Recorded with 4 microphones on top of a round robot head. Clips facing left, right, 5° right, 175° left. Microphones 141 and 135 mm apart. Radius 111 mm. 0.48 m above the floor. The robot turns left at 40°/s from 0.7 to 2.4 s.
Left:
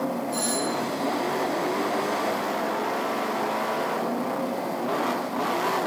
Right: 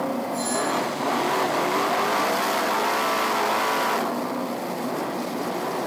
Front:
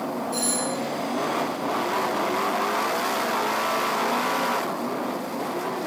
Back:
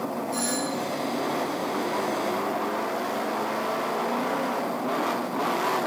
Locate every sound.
0.3 s a doorbell: 65° left, 7 m; by 0.8 s 60° left, 7 m